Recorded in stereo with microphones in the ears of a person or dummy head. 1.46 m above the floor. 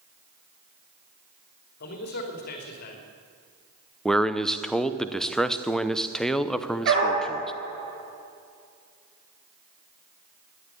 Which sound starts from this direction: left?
A man speaking, at 1.8 s.